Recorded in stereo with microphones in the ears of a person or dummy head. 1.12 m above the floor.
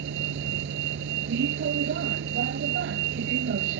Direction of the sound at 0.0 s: 55° right (ahead or behind).